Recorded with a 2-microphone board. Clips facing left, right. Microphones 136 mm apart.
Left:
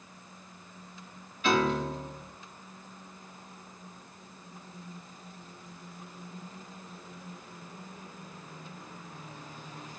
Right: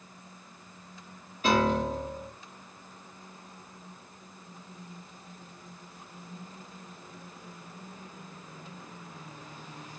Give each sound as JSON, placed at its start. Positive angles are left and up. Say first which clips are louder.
{"t": 1.4, "sound": "a piano", "louder": "right 2 dB", "side_deg": -40, "distance_m": 2.0}